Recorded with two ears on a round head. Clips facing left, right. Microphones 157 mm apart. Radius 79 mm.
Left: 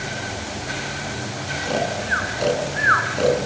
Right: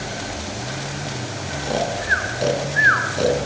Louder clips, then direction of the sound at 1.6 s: Right 1 dB; 10° right (ahead or behind).